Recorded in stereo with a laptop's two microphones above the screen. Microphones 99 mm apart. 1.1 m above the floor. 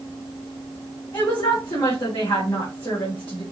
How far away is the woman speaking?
About 3 m.